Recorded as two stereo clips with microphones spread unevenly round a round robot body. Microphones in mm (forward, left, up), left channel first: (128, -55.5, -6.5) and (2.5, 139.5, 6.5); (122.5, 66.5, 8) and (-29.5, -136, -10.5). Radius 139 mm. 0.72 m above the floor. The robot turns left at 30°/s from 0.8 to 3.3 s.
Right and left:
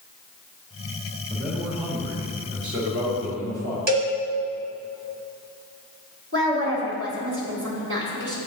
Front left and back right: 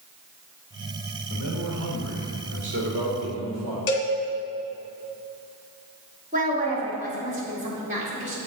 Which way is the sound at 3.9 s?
80° left.